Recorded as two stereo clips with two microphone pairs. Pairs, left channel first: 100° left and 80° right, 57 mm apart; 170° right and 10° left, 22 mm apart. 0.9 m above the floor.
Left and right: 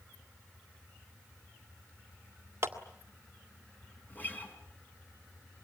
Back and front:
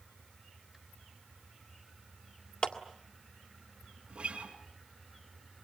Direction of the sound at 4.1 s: 45° left.